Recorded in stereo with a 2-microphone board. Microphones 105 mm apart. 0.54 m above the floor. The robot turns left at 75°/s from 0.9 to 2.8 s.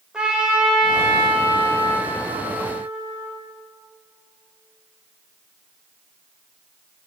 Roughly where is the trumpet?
Ahead.